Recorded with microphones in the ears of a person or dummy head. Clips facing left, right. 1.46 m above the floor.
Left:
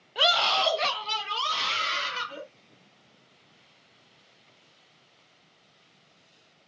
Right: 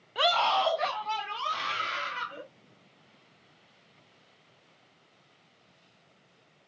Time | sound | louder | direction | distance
0.1 | a scream | right 1 dB | 5° right (ahead or behind) | 0.7 m